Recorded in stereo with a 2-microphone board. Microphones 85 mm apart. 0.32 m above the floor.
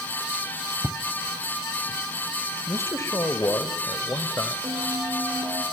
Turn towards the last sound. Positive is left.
turn(degrees=-55)  # may be behind; listen again after turning